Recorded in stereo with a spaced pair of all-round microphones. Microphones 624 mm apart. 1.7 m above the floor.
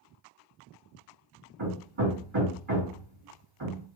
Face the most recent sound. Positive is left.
turn(degrees=-45)  # may be behind; listen again after turning